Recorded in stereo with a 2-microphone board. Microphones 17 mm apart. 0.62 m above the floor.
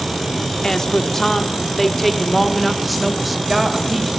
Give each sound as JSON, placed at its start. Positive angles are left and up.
{"t": 0.6, "sound": "a woman speaking", "side_deg": 40, "distance_m": 1.5}